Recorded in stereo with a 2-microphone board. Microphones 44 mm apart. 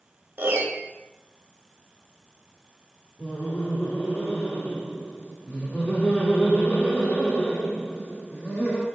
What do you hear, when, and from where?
0.4 s a piano: 50° right (ahead or behind), 0.6 m
3.2 s laughter: 35° left (ahead or behind), 1.2 m